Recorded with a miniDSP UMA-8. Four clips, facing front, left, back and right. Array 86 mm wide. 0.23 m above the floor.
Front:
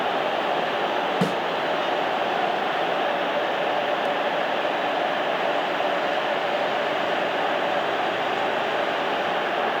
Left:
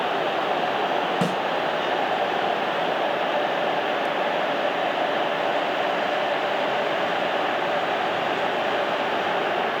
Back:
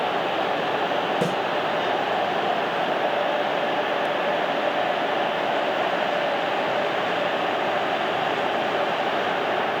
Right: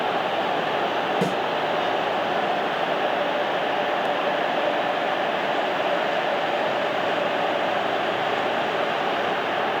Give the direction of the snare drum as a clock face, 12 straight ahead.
11 o'clock.